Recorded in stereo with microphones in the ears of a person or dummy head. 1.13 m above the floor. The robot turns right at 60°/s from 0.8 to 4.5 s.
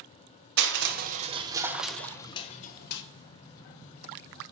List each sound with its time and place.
0.6 s crushing: 60° right, 0.9 m; by 3.0 s 75° left, 0.9 m